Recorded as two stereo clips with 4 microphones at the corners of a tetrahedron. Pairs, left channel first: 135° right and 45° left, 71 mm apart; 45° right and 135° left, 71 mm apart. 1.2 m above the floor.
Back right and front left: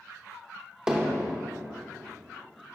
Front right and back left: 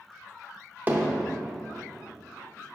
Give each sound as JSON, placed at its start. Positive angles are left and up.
{"t": 0.9, "sound": "hammering", "azimuth_deg": 115, "distance_m": 0.8}